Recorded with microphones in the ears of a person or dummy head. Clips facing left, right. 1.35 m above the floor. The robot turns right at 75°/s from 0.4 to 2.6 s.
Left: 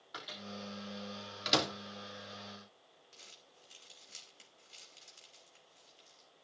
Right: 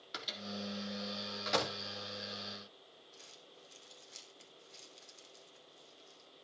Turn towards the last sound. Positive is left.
turn(degrees=50)  # may be behind; listen again after turning